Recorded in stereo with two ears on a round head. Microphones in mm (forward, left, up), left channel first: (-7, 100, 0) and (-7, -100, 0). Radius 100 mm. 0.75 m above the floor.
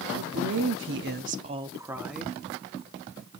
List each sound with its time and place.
0.1 s a woman speaking: 65° right (ahead or behind), 1.3 m; by 2.4 s centre (ahead or behind), 1.4 m